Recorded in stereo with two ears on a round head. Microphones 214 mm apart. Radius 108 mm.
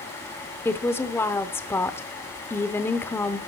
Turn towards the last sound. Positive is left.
turn(degrees=10)  # may be behind; listen again after turning